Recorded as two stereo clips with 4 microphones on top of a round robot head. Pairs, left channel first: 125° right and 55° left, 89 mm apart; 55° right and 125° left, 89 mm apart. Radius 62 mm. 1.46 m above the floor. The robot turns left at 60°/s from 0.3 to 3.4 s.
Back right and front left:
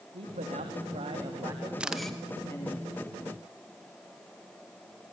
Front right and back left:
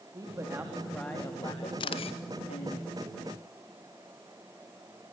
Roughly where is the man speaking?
Left.